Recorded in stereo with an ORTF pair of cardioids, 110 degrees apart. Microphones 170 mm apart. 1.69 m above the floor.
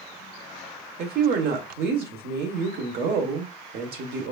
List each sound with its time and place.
1.0 s a woman speaking: 65° right, 1.3 m